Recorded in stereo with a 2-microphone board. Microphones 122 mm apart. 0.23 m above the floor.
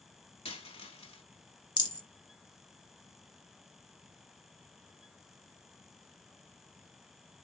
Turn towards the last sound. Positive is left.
turn(degrees=40)  # may be behind; listen again after turning